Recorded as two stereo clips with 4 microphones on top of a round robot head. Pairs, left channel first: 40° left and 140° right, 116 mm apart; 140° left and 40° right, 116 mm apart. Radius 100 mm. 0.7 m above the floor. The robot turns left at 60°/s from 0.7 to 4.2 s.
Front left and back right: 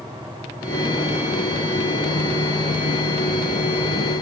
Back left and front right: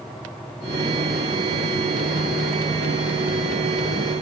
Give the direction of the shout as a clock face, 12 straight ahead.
I don't hear a shout.